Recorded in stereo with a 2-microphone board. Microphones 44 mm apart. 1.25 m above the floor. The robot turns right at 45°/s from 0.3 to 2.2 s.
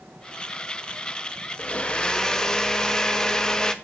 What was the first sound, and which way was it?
A blender, 30° left (ahead or behind).